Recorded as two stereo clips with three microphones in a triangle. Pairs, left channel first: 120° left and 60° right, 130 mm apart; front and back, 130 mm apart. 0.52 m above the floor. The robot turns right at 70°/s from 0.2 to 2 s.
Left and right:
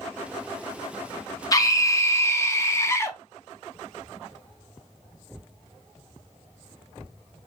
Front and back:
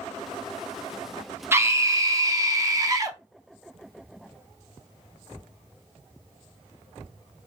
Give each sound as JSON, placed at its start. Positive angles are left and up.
{"t": 1.5, "sound": "a scream", "azimuth_deg": 130, "distance_m": 0.7}